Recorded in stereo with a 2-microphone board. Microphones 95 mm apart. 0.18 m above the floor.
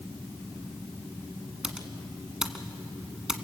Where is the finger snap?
I don't hear a finger snap.